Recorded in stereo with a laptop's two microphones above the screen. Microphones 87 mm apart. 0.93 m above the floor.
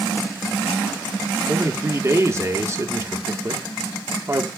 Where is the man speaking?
35° right (ahead or behind), 1.9 m.